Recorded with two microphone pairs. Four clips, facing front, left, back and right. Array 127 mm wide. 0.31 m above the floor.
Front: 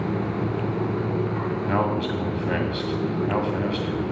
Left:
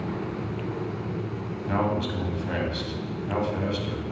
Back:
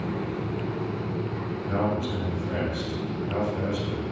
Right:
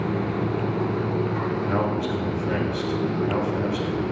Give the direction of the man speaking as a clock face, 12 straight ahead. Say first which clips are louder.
Left 2 dB, front 2 dB; 12 o'clock.